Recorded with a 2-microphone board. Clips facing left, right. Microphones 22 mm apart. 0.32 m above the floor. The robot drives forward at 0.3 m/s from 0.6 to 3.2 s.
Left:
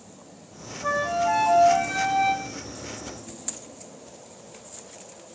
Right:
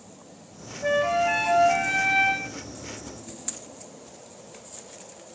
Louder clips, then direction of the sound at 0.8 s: Right 1 dB; 85° right.